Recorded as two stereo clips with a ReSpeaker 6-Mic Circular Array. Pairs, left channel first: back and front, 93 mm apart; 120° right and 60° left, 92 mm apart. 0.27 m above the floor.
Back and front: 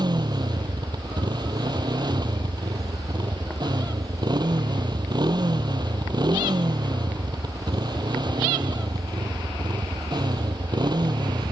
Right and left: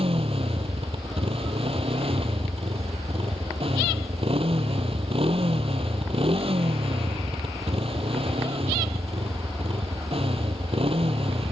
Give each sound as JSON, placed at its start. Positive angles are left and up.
{"t": 0.0, "sound": "a motorcycle", "azimuth_deg": 45}